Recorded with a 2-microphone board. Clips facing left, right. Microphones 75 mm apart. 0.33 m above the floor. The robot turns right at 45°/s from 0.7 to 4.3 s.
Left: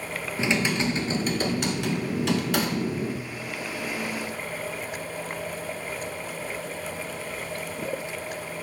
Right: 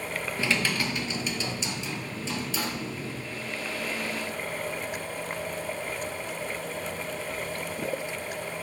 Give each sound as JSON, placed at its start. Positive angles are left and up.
{"t": 0.4, "sound": "typing on a keyboard", "azimuth_deg": 20, "distance_m": 1.0}